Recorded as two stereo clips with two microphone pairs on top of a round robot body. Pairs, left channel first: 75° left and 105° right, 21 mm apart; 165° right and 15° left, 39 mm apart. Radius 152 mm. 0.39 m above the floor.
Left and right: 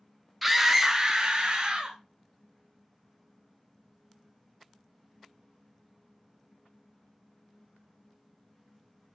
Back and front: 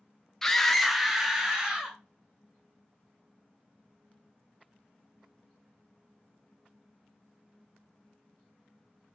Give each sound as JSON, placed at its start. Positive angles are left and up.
{"t": 0.4, "sound": "a scream", "azimuth_deg": 160, "distance_m": 0.8}